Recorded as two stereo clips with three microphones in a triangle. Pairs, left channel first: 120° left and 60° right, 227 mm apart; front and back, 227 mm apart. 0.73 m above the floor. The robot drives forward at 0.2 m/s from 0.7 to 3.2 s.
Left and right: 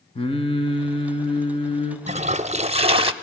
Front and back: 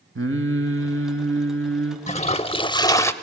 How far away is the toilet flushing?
About 0.6 m.